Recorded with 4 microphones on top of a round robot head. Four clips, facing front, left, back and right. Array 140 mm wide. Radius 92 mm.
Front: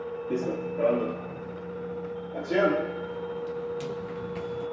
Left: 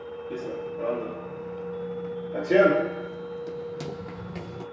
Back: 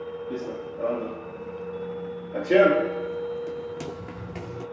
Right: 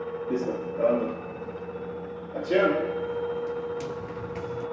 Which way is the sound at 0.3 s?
40° right.